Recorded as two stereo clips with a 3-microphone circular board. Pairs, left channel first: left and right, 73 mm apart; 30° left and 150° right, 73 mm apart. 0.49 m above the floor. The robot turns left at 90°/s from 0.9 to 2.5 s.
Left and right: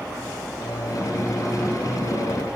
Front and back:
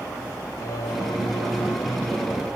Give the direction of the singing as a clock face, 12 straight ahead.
10 o'clock.